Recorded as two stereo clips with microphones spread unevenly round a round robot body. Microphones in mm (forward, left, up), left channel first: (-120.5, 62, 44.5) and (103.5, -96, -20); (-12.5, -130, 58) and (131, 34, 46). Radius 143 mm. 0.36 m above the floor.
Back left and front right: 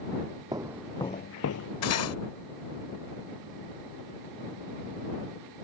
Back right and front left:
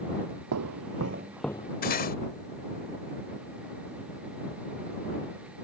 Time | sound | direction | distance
0.5 | footsteps | 45° left | ?
1.8 | cutlery clinking | straight behind | ?